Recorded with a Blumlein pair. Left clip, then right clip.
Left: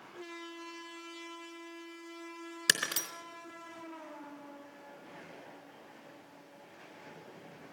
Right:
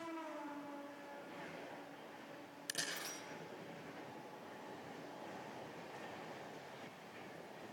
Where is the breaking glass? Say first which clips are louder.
Left 13 dB; 45° left, 3.5 m.